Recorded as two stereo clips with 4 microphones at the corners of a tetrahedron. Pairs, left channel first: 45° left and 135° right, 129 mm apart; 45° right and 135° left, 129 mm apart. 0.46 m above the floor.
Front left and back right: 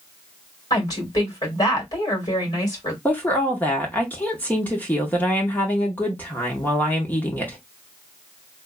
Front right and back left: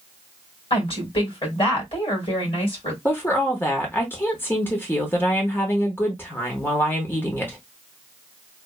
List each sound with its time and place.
0.7 s a woman speaking: 10° right, 2.0 m
3.0 s a woman speaking: 10° right, 0.9 m